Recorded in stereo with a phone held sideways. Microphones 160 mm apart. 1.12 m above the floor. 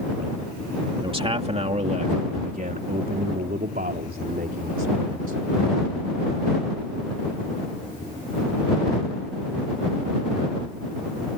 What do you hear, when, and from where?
1.0 s a man speaking: 35° right (ahead or behind); by 5.4 s 75° right (ahead or behind)